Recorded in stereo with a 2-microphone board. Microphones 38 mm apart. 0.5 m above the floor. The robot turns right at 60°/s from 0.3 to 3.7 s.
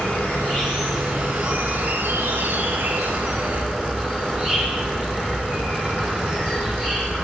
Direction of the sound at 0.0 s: 130° left.